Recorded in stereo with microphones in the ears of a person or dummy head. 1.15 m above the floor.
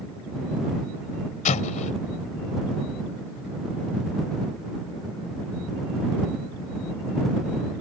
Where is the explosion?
45° left (ahead or behind).